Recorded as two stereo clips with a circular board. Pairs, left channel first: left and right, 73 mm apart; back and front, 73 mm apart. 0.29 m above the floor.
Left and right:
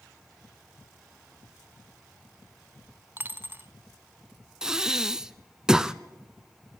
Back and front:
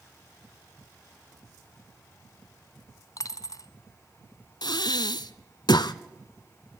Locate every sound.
3.2 s a dropped coin: 150° right, 0.8 m
4.6 s breathing: 170° right, 0.6 m